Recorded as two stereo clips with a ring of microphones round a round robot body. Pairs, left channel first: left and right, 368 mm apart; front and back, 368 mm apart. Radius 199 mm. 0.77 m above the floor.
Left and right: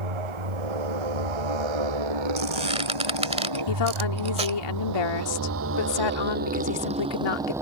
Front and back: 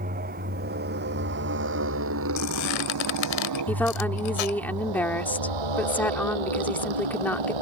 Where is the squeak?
15° right.